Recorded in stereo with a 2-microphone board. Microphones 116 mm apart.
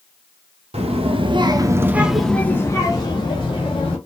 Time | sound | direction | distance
0.7 | a child speaking | 60° right (ahead or behind) | 0.9 m